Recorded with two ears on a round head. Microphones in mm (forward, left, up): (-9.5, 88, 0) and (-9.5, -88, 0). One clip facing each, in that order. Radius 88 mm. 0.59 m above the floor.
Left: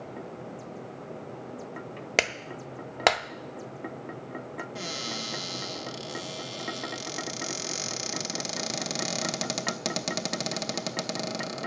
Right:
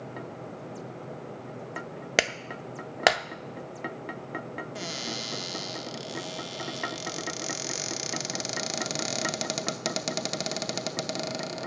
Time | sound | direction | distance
2.2 | a clap | 5° right (ahead or behind) | 0.6 m
4.8 | a cupboard door | centre (ahead or behind) | 0.7 m